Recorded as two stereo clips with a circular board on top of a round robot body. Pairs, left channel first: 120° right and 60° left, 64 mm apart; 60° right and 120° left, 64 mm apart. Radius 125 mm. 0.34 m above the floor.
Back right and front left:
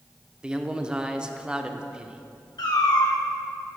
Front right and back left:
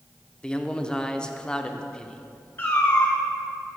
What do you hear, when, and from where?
0.4 s a man speaking: straight ahead, 0.8 m
2.6 s a cat meowing: 120° right, 1.7 m